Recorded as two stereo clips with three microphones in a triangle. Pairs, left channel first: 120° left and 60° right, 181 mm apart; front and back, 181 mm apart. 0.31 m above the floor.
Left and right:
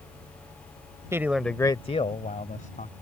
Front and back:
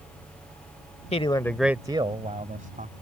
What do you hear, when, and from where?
1.1 s a man speaking: straight ahead; by 2.9 s 150° left